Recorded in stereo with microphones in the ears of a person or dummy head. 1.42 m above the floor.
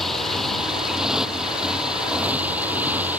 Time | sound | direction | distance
0.0 | a motorcycle | centre (ahead or behind) | ?